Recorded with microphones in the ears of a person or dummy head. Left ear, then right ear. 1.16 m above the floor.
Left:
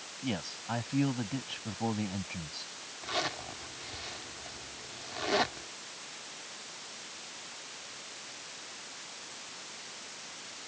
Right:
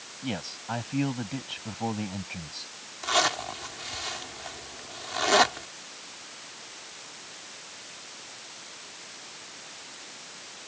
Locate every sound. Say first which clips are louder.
0.2 s a man speaking: right 3 dB; 5° right (ahead or behind)
3.0 s a zipper: right 9 dB; 40° right (ahead or behind)